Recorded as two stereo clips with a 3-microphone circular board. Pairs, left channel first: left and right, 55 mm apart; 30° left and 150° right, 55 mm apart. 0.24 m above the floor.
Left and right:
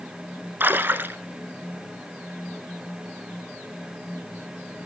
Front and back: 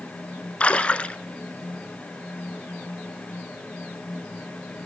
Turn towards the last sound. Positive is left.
turn(degrees=-35)